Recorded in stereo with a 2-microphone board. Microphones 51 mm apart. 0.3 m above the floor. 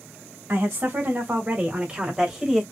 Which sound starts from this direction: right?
A woman speaking, at 0.5 s.